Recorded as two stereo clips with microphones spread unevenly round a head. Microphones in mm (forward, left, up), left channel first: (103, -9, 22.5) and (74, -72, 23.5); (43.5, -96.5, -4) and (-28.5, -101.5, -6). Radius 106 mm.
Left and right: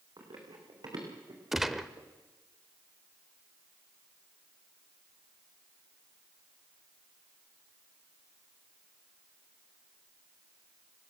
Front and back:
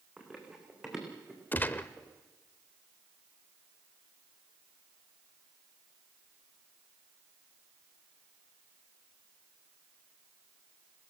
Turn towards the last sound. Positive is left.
turn(degrees=-35)